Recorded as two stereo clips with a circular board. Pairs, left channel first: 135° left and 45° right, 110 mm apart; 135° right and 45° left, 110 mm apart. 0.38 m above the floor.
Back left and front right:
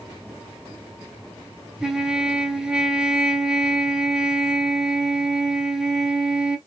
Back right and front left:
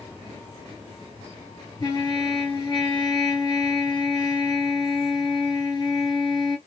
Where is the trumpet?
125° right, 1.1 m.